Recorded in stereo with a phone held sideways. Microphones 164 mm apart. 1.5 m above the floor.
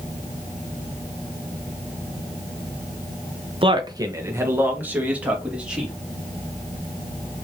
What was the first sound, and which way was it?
A man speaking, 35° right (ahead or behind).